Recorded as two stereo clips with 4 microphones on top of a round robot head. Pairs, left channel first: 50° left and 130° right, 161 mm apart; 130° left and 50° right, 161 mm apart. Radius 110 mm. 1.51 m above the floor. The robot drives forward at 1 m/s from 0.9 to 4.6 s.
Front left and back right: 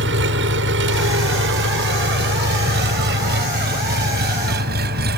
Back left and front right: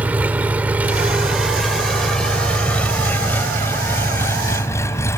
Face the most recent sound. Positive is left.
turn(degrees=-160)